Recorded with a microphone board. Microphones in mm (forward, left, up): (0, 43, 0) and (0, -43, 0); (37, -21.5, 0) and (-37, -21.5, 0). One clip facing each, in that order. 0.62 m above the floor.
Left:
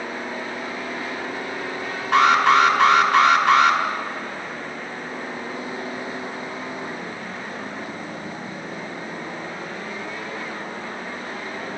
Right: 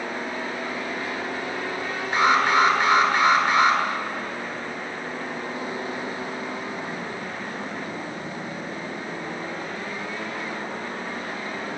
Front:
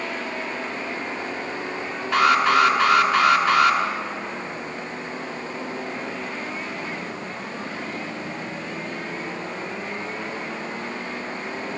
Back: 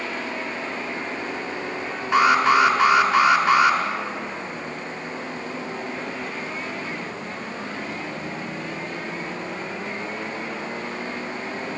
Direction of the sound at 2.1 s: 110° left.